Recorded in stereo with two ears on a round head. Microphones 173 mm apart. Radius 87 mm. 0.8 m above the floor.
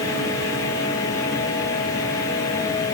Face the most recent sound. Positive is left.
No sound to turn to.